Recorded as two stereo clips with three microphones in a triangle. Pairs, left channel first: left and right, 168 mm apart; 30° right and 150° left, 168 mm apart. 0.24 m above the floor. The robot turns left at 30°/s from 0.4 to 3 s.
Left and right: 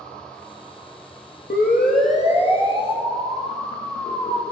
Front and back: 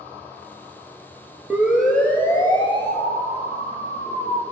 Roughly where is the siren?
Left.